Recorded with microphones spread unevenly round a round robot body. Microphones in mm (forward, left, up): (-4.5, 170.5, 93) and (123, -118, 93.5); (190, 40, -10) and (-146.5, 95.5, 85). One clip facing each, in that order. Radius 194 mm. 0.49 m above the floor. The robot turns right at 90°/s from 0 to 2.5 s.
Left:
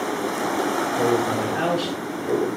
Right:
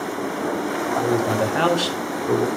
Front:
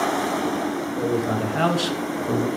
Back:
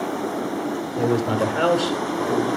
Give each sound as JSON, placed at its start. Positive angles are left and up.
{"t": 1.0, "sound": "a man speaking", "azimuth_deg": -135, "distance_m": 2.0}